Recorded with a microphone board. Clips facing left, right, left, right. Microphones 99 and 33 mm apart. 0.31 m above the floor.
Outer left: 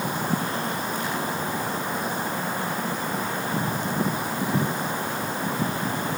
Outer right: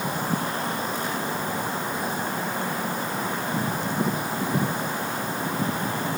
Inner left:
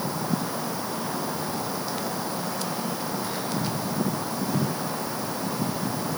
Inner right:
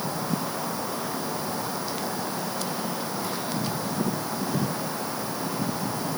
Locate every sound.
Only background noise.